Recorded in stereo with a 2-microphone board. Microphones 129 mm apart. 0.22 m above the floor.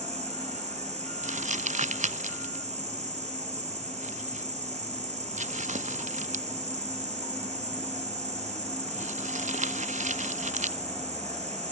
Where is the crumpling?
70° right (ahead or behind), 0.7 m.